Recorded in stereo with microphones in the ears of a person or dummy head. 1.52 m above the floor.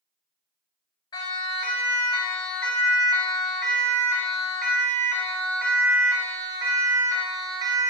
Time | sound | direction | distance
1.1 | a siren | 20° left (ahead or behind) | 6 m